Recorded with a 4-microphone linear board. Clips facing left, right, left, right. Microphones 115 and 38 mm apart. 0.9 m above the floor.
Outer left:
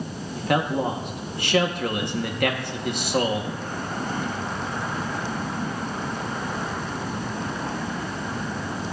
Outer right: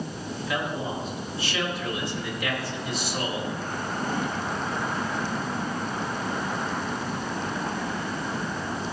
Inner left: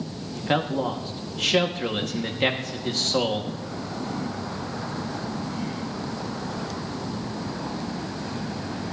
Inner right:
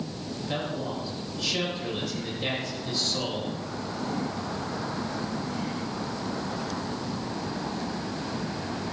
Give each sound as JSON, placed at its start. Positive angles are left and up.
{"t": 0.3, "sound": "a man speaking", "side_deg": 60, "distance_m": 1.4}